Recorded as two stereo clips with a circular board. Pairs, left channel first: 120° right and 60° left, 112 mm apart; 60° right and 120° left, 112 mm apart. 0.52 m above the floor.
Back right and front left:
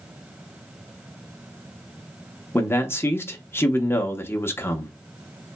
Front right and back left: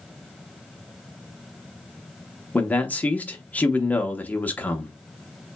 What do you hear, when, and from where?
2.5 s a man speaking: 105° right, 0.6 m